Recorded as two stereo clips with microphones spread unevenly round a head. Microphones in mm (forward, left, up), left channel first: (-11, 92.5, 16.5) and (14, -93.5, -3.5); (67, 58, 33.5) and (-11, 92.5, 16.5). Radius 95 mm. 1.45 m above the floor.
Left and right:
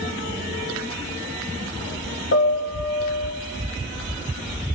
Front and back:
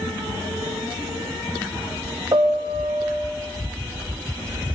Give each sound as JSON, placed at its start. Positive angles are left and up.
{"t": 2.3, "sound": "a piano", "azimuth_deg": 110, "distance_m": 0.8}